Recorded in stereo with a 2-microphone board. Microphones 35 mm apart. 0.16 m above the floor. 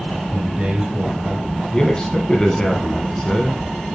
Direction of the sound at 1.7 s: 20° left (ahead or behind).